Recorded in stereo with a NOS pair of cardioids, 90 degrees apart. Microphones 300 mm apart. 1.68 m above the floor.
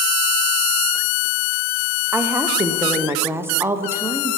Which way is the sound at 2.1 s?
10° right.